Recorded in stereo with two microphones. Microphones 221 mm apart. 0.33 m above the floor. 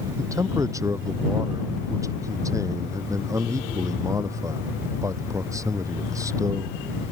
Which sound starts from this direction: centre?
A man speaking, at 0.2 s.